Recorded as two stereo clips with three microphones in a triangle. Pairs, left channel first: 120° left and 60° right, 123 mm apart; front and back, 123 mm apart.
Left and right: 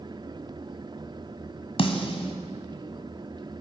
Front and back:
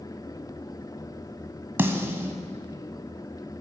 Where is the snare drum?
115° left, 1.4 m.